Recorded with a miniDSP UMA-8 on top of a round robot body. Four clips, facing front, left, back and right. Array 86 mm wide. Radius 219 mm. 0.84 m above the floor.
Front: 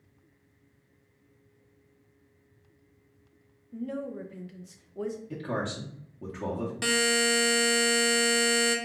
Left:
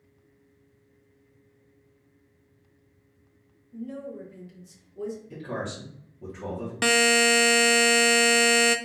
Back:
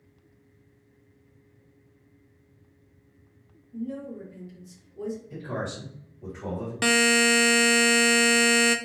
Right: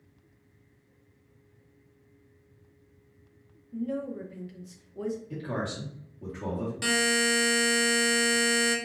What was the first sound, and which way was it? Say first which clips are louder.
A woman speaking: right 4 dB, even; 25° right.